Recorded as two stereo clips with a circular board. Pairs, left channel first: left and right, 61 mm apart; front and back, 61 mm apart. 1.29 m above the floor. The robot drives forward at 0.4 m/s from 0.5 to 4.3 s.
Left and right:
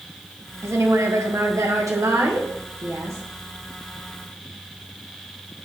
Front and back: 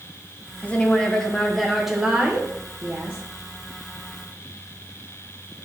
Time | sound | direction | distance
0.6 | a woman speaking | 60° right | 1.0 m